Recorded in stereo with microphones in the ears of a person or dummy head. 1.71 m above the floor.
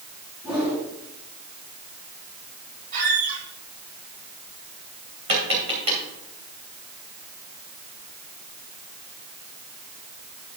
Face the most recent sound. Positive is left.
turn(degrees=-25)  # may be behind; listen again after turning